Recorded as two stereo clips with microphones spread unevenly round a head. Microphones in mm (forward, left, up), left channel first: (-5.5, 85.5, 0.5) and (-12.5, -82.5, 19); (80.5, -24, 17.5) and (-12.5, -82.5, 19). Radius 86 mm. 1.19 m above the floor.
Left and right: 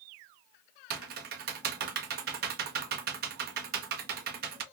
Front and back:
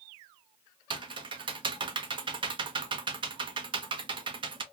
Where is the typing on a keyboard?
110° right, 0.6 m.